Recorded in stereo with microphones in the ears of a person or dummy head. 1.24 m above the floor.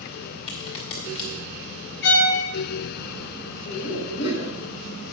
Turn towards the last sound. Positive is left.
turn(degrees=90)